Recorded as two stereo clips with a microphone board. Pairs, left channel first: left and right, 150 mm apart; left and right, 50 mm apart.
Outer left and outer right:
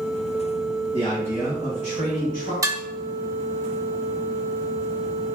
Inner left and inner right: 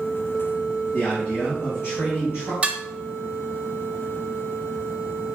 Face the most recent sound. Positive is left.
turn(degrees=-20)  # may be behind; listen again after turning